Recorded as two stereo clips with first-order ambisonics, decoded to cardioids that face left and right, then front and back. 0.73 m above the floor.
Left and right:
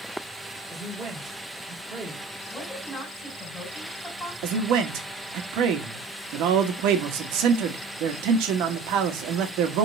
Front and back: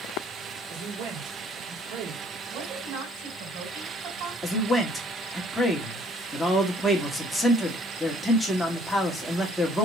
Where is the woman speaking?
175° left, 4 m.